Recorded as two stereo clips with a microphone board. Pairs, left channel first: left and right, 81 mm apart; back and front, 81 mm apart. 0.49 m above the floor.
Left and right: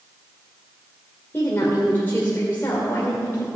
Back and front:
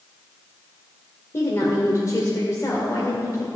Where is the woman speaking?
145° left, 2.0 m.